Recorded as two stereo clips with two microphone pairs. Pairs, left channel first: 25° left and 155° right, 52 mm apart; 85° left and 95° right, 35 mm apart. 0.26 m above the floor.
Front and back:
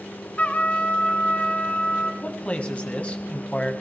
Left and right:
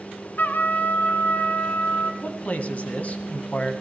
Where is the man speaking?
80° left, 1.9 m.